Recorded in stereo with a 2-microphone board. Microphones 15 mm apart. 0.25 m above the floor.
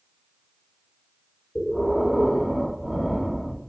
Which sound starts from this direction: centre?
Breathing, at 1.6 s.